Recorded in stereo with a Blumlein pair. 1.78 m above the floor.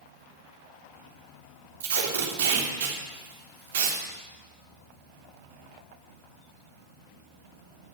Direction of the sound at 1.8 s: 50° right.